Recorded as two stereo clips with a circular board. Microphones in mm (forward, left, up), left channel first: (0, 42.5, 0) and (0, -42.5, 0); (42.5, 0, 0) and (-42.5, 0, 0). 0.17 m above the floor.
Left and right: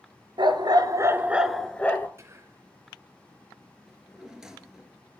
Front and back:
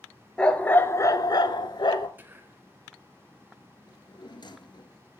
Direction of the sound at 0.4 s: 80° right.